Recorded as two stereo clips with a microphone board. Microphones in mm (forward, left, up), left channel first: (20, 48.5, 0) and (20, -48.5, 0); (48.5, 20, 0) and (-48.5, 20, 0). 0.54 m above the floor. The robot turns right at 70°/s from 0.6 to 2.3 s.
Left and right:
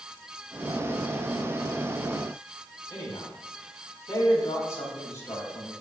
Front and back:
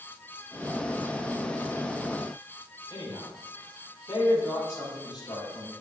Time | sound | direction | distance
2.9 | a man speaking | 35° left | 4 m